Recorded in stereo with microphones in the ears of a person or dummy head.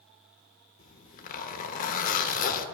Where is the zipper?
50° left (ahead or behind), 0.7 m.